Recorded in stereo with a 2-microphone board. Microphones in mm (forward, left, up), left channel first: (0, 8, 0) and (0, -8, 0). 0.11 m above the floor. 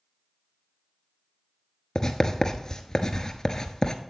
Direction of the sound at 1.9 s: 40° left (ahead or behind).